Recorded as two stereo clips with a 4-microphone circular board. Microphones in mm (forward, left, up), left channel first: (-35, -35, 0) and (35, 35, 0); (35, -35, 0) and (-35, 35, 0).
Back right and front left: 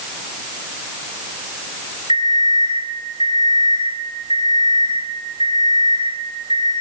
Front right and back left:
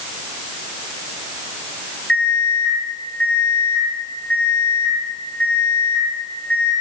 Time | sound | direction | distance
2.1 | an alarm clock | 125° right | 5 m